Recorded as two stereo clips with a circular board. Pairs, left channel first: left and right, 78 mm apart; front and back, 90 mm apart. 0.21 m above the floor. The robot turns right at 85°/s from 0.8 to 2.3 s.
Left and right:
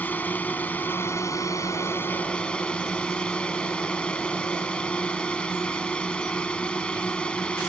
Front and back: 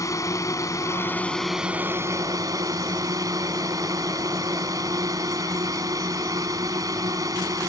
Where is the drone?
35° left; by 7.7 s 160° left.